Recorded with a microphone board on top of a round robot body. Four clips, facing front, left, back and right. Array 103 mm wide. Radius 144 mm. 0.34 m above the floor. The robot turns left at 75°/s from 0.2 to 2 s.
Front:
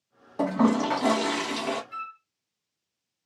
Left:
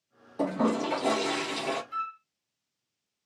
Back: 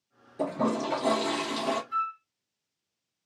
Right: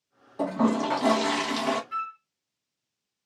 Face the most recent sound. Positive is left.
turn(degrees=-95)